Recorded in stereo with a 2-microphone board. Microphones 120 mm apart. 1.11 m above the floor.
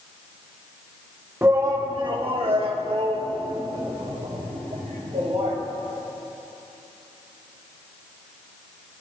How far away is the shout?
About 1.1 m.